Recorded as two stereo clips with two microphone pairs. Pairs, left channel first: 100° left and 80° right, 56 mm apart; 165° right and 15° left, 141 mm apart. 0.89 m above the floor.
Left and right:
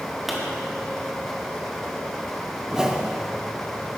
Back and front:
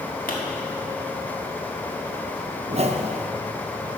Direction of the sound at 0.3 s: 170° right.